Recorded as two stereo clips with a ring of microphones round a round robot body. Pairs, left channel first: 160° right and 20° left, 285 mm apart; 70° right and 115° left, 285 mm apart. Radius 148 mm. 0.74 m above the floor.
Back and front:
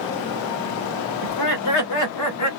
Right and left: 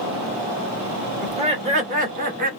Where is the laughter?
Straight behind, 2.5 m; by 2.5 s 170° left, 2 m.